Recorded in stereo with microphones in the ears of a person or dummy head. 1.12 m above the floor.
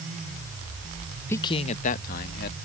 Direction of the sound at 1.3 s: 10° left (ahead or behind).